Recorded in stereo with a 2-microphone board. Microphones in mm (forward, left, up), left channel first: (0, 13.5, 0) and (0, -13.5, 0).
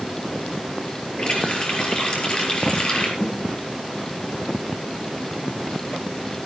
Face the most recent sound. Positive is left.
turn(degrees=35)  # may be behind; listen again after turning